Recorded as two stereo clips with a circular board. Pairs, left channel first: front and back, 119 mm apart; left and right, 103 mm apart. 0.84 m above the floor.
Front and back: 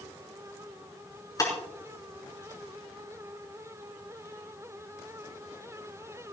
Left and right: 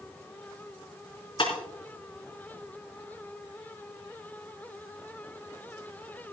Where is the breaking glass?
60° left, 3.5 m.